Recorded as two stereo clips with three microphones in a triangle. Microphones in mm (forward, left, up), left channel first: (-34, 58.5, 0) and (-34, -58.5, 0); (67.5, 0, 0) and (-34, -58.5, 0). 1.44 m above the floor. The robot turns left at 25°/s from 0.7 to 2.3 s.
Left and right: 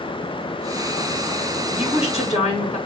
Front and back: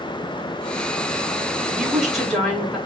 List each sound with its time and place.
1.7 s a woman speaking: 130° left, 2.5 m; by 2.8 s 115° left, 2.5 m